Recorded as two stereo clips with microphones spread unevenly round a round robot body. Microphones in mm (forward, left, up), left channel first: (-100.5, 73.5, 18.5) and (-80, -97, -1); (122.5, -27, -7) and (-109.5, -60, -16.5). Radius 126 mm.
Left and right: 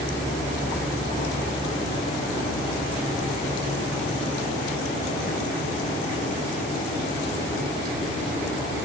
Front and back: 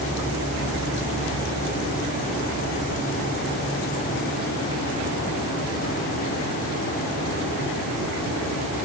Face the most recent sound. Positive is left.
No sound to turn to.